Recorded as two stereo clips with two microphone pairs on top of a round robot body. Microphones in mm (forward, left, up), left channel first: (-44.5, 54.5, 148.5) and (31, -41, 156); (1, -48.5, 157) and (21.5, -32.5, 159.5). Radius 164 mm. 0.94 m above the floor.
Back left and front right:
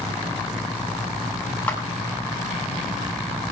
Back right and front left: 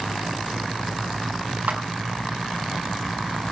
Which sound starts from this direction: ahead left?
A clap, at 1.7 s.